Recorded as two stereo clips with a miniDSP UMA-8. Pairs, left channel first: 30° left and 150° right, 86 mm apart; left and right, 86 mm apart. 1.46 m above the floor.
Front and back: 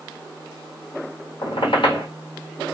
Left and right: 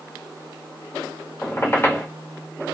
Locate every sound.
1.4 s a squeak: 30° left, 1.0 m